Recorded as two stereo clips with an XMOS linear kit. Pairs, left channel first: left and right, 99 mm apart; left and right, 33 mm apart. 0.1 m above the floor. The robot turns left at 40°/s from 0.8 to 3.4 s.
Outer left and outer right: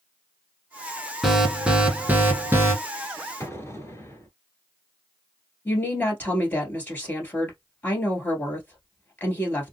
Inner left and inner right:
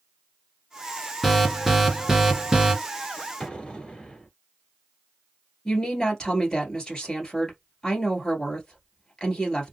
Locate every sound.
1.2 s an alarm: 5° right (ahead or behind), 1.4 m; by 2.7 s 25° right (ahead or behind), 1.4 m
3.4 s an explosion: 30° left (ahead or behind), 1.1 m
5.7 s a woman speaking: 20° left (ahead or behind), 1.6 m